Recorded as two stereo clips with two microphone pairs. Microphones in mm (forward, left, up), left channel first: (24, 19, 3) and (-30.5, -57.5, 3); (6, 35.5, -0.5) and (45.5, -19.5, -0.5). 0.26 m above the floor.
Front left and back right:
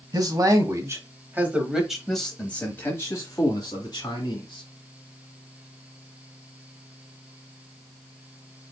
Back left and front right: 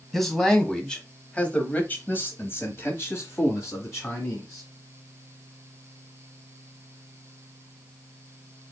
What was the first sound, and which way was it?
A man speaking, 145° right.